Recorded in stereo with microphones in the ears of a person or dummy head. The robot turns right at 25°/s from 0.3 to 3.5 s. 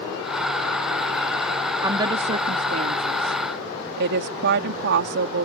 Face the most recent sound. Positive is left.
turn(degrees=-60)  # may be behind; listen again after turning